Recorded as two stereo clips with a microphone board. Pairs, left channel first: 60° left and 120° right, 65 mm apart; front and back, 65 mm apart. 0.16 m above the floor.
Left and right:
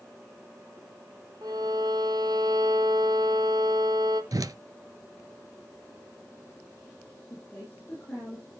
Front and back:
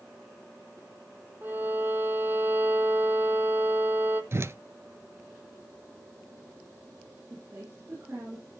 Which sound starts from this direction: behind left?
A woman speaking, at 7.3 s.